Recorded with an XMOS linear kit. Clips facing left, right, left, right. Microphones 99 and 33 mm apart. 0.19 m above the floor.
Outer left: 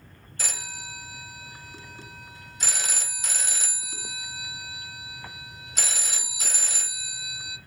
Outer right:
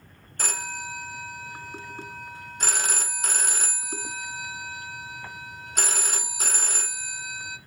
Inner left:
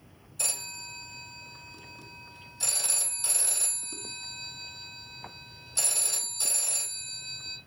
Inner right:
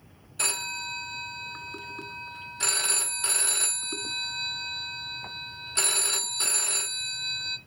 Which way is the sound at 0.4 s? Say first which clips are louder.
Outer right 6 dB, inner right 7 dB; 55° right (ahead or behind).